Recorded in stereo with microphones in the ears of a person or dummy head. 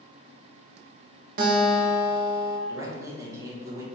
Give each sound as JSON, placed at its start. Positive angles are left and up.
{"t": 1.4, "sound": "a guitar", "side_deg": -50, "distance_m": 1.1}
{"t": 2.7, "sound": "a man speaking", "side_deg": -15, "distance_m": 1.3}